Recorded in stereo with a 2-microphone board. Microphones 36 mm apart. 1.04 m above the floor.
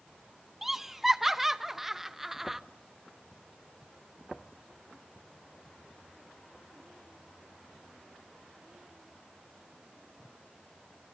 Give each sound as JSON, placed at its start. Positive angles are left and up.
{"t": 0.6, "sound": "laughter", "side_deg": -10, "distance_m": 0.7}